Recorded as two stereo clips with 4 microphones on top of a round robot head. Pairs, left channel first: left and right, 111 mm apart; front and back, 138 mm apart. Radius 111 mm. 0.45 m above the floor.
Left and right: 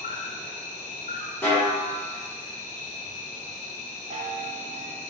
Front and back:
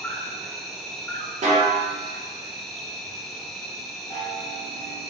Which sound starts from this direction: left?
An insect, at 0.0 s.